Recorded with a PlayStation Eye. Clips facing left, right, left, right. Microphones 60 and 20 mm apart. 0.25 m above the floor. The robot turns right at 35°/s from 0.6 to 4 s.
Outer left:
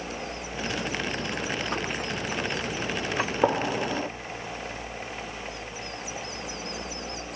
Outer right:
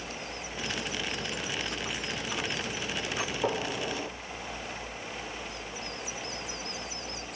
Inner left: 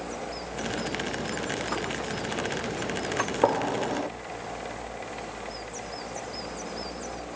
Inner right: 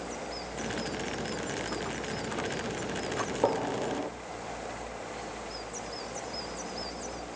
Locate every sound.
3.2 s a gunshot: 55° left (ahead or behind), 0.5 m; by 4.1 s 40° left (ahead or behind), 0.5 m